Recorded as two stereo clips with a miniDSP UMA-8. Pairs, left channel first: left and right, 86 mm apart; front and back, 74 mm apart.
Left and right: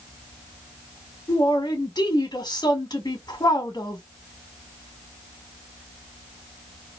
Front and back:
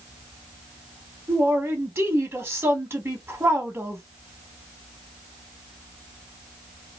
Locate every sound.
1.3 s a man speaking: 125° left, 1.6 m